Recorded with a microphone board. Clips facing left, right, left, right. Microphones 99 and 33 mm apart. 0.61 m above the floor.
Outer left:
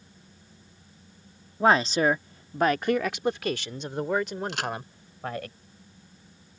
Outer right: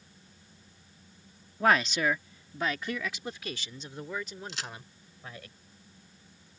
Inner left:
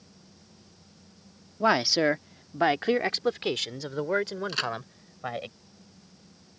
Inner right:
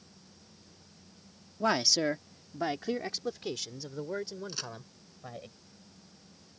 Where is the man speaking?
25° left (ahead or behind); by 5.5 s 65° left (ahead or behind).